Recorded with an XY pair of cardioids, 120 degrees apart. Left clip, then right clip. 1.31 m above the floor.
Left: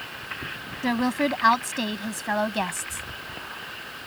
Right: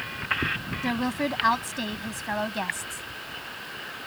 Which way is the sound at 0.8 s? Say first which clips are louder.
Left 5 dB; 20° left.